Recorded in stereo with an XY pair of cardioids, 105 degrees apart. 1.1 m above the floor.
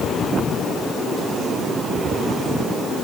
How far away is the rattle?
No rattle in this recording.